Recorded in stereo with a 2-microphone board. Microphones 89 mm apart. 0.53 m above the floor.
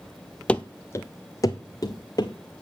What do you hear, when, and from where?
0.5 s running footsteps: 15° left (ahead or behind), 0.6 m; by 2.3 s 45° left (ahead or behind), 2.0 m